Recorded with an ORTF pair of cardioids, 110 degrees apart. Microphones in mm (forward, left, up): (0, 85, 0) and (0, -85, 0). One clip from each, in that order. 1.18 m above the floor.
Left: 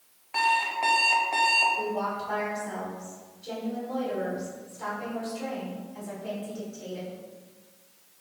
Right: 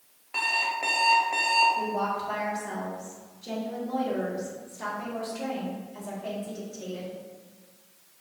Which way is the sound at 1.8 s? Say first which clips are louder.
Right 1 dB; 40° right.